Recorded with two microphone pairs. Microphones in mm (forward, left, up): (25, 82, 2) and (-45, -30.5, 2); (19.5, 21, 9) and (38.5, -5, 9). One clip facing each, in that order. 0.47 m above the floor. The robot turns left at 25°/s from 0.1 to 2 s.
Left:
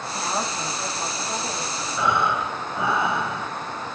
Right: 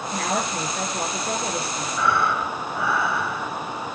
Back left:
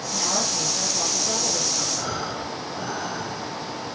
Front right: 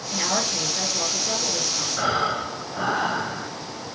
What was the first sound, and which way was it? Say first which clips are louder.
A woman speaking: right 2 dB, front right 2 dB; 110° right.